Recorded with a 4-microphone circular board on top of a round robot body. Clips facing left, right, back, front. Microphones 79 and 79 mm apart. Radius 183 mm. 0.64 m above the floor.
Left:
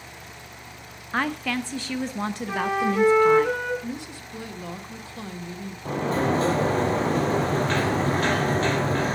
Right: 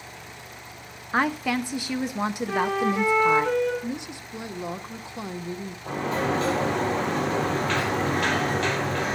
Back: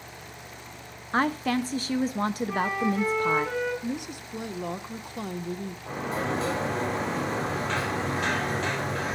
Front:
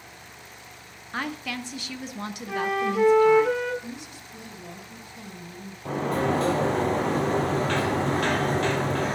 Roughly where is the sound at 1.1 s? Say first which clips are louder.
Right 2 dB, back 7 dB; behind.